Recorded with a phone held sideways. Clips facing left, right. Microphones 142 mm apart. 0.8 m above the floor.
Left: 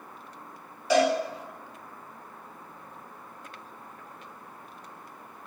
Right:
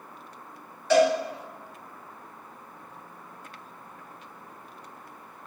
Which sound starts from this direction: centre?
A cowbell, at 0.9 s.